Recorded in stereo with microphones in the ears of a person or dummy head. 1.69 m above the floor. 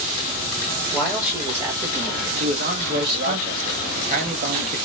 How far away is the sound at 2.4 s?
About 1.6 m.